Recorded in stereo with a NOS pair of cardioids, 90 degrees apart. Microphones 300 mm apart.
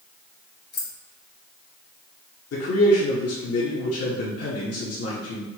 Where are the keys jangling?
35° left, 1.4 m.